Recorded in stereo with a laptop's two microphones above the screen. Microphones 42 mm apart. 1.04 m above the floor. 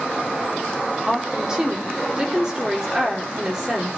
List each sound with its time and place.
1.1 s a woman speaking: 15° right (ahead or behind), 3 m